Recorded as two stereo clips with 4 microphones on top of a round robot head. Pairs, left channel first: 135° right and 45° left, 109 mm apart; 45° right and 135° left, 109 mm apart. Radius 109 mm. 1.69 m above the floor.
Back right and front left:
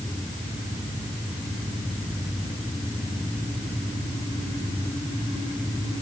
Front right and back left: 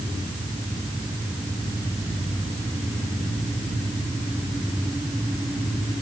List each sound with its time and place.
Only background noise.